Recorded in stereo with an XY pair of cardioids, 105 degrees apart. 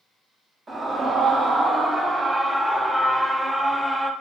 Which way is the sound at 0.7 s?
40° right.